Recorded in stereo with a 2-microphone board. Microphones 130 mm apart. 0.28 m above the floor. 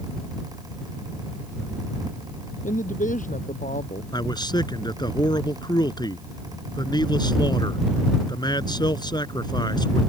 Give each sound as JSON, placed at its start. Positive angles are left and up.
{"t": 2.6, "sound": "a woman speaking", "side_deg": 80}
{"t": 4.1, "sound": "a man speaking", "side_deg": 35}